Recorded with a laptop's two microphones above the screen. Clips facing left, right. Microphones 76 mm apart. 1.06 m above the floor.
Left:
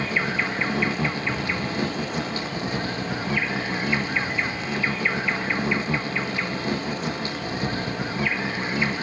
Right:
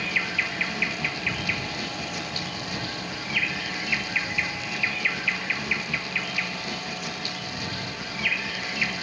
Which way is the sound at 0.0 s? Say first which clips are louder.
Left 4 dB; 35° left (ahead or behind).